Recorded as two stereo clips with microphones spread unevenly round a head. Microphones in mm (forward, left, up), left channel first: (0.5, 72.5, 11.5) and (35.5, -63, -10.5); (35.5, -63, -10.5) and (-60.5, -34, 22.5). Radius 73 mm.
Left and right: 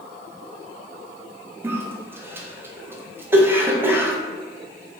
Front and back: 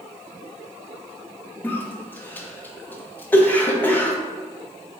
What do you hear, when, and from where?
1.6 s a cough: 25° right, 0.6 m